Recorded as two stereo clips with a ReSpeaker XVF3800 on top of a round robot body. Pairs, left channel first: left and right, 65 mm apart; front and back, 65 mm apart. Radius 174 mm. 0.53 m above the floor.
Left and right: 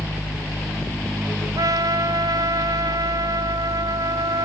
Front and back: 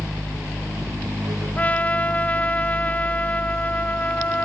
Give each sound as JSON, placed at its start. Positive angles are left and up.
{"t": 1.6, "sound": "a trumpet", "azimuth_deg": -70}